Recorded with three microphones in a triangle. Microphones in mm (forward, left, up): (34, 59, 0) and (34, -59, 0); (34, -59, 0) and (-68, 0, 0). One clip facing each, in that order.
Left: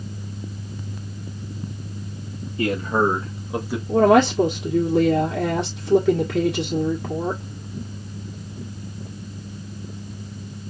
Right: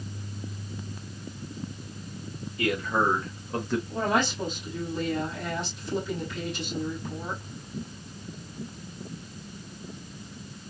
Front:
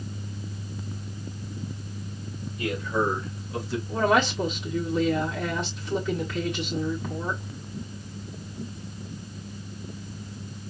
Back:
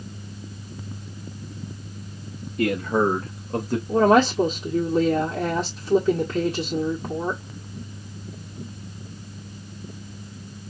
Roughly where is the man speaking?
Behind left.